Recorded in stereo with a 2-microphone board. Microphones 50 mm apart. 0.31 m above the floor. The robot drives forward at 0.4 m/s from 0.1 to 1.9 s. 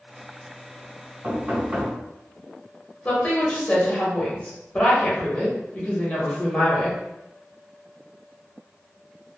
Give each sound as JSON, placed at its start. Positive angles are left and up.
{"t": 1.2, "sound": "knocking", "side_deg": -30, "distance_m": 1.9}
{"t": 3.0, "sound": "a woman speaking", "side_deg": 25, "distance_m": 0.9}